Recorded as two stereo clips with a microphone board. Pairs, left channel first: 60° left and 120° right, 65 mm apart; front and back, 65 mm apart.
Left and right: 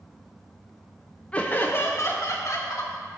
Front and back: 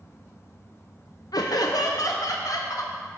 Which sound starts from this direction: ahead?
Laughter, at 1.3 s.